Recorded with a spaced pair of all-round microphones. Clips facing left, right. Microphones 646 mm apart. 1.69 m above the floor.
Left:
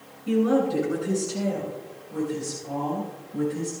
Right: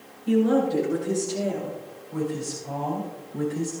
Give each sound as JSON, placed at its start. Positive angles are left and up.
{"t": 0.3, "sound": "a woman speaking", "side_deg": 35, "distance_m": 7.5}